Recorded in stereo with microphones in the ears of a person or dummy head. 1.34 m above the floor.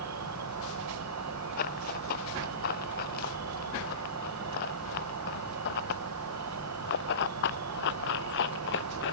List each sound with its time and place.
0.0 s an insect: 80° right
1.6 s running footsteps: 50° left (ahead or behind); by 9.1 s 65° left (ahead or behind)